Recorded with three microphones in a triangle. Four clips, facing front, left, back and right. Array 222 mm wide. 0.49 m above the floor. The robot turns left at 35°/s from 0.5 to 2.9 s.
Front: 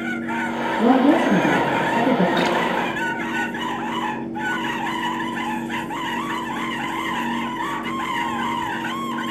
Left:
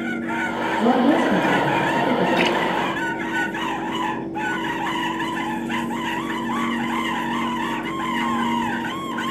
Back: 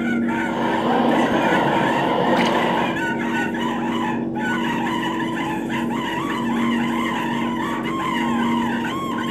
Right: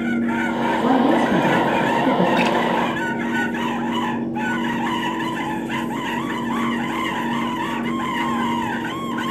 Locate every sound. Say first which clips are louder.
0.8 s a woman speaking: left 1 dB, front 4 dB; 5° right, 6.5 m; by 2.3 s 55° right, 6.5 m
2.4 s a splash: right 1 dB, back 1 dB; 55° left, 2 m; by 2.6 s 45° left, 2 m